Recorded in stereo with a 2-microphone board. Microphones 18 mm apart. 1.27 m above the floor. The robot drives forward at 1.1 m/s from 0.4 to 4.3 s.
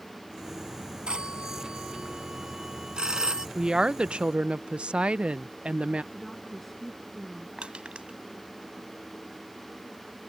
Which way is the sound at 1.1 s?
50° right (ahead or behind).